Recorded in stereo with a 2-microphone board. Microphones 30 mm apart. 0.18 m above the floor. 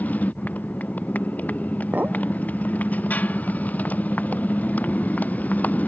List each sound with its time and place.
0.0 s a motorcycle: 65° left (ahead or behind)
1.9 s a clink: 70° right (ahead or behind)